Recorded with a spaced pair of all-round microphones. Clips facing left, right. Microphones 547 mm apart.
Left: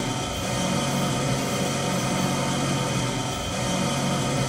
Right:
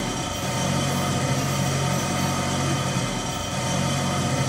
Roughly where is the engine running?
Right.